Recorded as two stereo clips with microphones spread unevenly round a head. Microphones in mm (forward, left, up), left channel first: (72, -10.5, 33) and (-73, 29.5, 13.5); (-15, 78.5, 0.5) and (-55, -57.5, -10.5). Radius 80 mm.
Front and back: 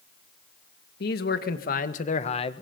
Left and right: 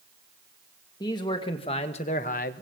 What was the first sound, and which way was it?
A man speaking, 5° left.